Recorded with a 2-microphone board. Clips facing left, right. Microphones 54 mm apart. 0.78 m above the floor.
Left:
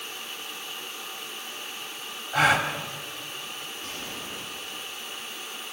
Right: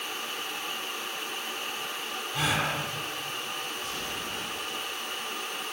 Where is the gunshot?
55° left (ahead or behind), 9 m.